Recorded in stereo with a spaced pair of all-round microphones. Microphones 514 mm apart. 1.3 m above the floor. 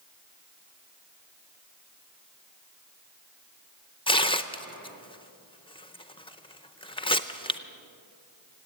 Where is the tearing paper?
10° left (ahead or behind), 0.5 m.